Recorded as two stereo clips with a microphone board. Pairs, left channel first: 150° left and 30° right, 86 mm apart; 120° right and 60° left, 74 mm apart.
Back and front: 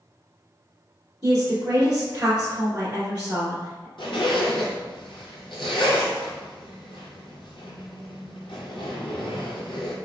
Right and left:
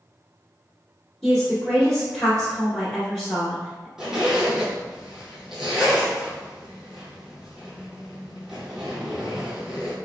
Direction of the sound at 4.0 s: 140° left.